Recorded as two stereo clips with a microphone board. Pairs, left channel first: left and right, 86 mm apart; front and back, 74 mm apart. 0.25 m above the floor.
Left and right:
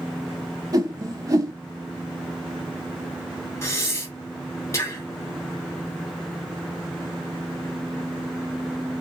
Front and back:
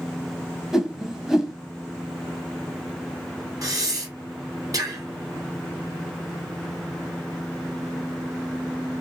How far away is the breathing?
About 0.9 m.